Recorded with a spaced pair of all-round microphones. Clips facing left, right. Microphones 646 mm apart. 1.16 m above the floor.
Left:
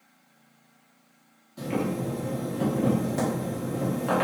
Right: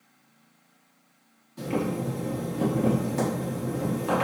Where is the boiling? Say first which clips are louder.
Even; 15° left (ahead or behind), 1.5 m.